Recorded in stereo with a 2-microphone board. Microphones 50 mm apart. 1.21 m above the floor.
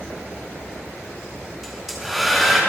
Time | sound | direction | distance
1.6 | a hair dryer | 5° right (ahead or behind) | 3.5 m